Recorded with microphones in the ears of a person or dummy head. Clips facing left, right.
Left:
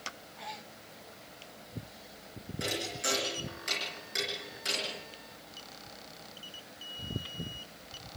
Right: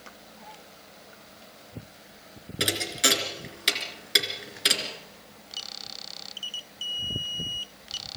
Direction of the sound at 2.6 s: 75° right (ahead or behind).